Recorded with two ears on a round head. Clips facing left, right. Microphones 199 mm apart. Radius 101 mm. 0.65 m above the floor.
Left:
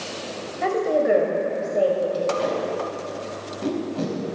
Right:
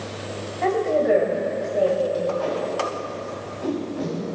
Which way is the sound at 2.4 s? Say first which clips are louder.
Even; 50° left (ahead or behind).